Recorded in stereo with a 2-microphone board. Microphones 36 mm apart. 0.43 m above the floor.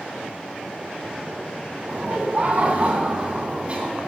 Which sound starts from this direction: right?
Laughter, at 1.9 s.